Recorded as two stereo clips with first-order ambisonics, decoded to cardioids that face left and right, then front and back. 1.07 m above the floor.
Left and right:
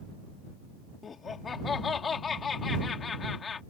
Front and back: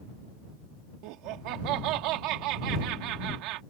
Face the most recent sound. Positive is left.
turn(degrees=160)